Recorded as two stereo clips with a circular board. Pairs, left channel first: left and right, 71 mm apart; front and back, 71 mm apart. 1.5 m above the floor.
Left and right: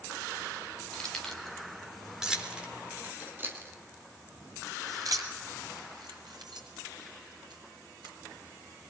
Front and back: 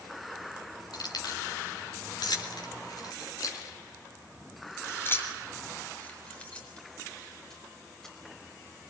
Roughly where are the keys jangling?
Ahead.